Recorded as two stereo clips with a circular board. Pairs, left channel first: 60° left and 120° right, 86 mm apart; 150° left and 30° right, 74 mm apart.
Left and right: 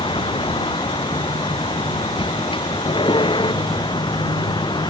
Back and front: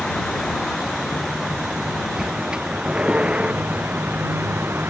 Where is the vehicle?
65° left; by 4.9 s 30° left.